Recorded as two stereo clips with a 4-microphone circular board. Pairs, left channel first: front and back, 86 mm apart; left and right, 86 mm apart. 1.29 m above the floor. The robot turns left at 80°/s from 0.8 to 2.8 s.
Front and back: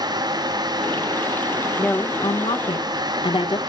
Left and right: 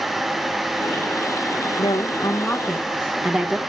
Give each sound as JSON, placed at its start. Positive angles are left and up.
{"t": 1.8, "sound": "a woman speaking", "azimuth_deg": 70, "distance_m": 1.7}